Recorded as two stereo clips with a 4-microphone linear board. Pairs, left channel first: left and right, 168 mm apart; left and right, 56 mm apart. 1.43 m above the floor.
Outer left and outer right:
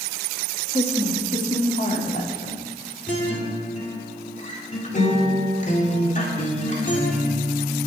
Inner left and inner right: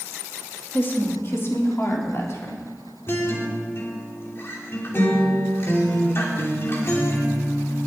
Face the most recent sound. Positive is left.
turn(degrees=45)  # may be behind; listen again after turning